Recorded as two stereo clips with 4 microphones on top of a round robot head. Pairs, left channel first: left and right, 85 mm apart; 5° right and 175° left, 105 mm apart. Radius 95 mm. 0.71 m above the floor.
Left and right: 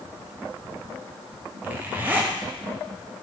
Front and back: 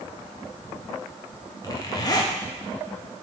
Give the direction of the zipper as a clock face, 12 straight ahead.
1 o'clock.